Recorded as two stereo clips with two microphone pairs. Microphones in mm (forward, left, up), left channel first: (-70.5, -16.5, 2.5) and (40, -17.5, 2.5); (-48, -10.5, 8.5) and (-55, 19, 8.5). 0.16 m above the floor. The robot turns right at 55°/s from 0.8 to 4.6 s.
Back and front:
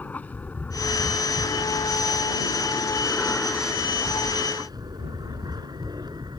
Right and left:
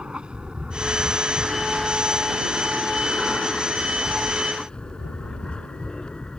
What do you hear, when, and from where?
0.0 s an aircraft: 115° left; by 6.4 s 35° right